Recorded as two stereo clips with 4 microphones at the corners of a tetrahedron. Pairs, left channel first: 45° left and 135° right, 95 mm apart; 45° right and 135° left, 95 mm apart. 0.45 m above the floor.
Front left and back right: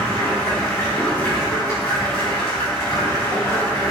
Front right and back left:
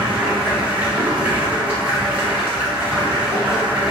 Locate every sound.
0.0 s running water: 80° left, 1.2 m